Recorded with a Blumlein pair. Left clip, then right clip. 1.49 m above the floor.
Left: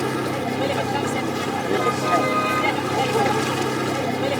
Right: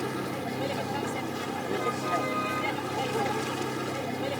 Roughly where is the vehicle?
Ahead left.